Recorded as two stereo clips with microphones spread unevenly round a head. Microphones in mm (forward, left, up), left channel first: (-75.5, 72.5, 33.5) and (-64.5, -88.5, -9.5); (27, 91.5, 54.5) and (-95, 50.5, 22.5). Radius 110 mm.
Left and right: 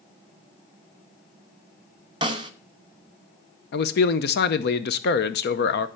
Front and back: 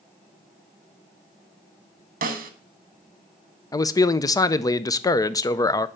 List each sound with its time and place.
2.2 s a snare drum: 155° right, 1.0 m
3.7 s a man speaking: 80° left, 0.7 m